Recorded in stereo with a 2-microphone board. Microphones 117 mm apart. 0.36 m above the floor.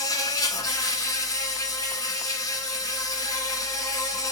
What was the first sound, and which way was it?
An insect, 30° left (ahead or behind).